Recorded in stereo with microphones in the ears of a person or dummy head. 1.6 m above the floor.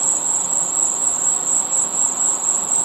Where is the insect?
5° right (ahead or behind).